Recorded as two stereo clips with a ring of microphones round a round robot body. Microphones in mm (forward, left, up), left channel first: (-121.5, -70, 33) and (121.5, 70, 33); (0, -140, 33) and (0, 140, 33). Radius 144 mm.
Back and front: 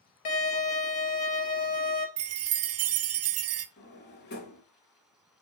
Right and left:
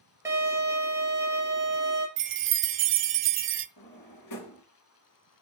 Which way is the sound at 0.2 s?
170° left.